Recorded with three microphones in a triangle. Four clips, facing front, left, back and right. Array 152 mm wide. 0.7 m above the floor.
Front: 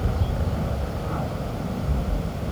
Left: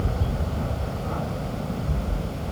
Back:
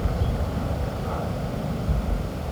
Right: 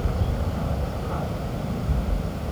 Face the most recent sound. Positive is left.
No sound to turn to.